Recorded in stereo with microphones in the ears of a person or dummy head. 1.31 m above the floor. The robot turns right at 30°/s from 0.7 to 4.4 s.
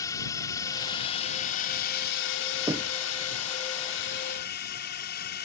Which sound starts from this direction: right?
Knocking, at 2.7 s.